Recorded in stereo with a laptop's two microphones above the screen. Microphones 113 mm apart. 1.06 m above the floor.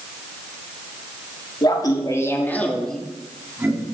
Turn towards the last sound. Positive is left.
turn(degrees=-20)  # may be behind; listen again after turning